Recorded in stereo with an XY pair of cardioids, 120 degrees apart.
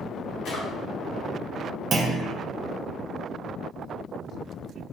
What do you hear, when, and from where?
0.5 s a drawer: 65° left, 1.2 m
1.9 s a clunk: 40° right, 0.6 m